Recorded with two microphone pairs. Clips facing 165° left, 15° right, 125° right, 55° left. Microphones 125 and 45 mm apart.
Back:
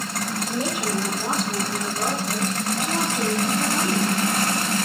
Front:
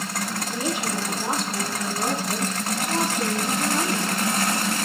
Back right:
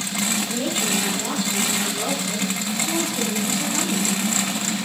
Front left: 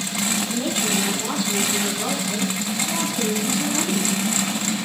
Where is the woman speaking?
165° right, 3.5 m; by 4.3 s 115° right, 4 m.